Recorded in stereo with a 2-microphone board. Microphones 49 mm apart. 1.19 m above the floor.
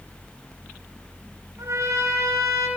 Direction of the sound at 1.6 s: 75° right (ahead or behind).